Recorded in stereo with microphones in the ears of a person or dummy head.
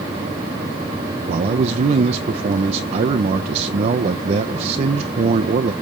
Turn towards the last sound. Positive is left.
turn(degrees=-40)  # may be behind; listen again after turning